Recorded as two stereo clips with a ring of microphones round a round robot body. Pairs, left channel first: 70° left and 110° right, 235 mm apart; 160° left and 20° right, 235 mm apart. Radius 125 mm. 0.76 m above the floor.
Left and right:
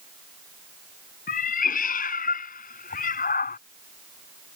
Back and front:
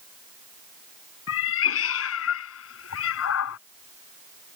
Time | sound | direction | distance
1.3 | a cat meowing | 125° left | ?